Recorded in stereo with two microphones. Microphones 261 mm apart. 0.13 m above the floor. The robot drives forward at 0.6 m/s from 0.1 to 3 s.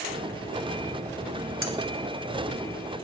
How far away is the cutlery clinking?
About 1.3 m.